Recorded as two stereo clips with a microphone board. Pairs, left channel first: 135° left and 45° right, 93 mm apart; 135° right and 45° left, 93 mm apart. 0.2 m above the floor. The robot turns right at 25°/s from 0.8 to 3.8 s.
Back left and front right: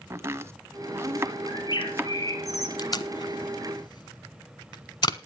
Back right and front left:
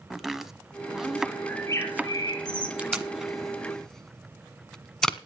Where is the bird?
165° left, 2.5 m; by 2.7 s 165° right, 2.5 m.